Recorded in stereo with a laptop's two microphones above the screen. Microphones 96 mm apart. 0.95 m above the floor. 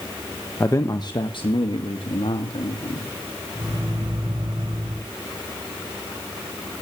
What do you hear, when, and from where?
0.6 s a man speaking: 25° left (ahead or behind), 1.0 m; by 3.1 s 75° left (ahead or behind), 3 m
3.5 s a microwave: 55° right (ahead or behind), 8.5 m